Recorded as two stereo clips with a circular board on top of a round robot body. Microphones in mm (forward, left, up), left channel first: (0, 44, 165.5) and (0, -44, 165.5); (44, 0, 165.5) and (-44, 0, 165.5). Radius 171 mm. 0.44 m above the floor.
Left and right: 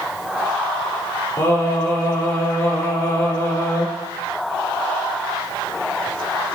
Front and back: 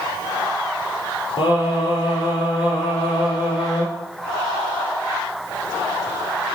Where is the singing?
30° left, 5.5 m.